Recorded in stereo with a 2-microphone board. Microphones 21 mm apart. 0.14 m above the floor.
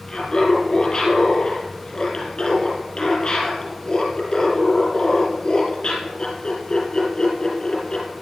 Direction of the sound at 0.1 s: 40° left (ahead or behind).